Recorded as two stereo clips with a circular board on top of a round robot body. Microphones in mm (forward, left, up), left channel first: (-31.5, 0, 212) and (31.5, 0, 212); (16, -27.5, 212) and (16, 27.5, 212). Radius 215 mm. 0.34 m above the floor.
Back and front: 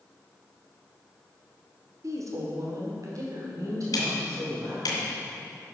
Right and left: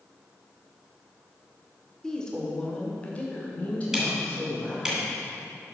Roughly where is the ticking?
Behind.